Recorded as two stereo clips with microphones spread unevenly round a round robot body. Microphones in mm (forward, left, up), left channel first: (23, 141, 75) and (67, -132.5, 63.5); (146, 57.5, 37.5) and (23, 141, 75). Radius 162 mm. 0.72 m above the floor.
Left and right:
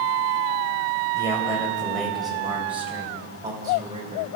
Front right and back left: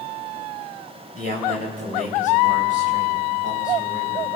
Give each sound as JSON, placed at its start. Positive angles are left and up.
{"t": 1.1, "sound": "a man speaking", "azimuth_deg": 180, "distance_m": 4.0}